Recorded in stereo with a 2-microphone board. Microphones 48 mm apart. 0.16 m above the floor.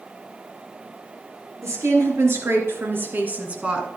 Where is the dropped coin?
I don't hear a dropped coin.